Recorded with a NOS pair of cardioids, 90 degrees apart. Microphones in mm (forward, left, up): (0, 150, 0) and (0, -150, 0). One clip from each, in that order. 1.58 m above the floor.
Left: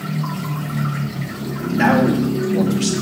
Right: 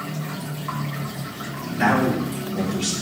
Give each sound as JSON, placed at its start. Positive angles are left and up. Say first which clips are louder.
{"t": 1.7, "sound": "a man speaking", "louder": "left 4 dB", "azimuth_deg": 65, "distance_m": 2.5}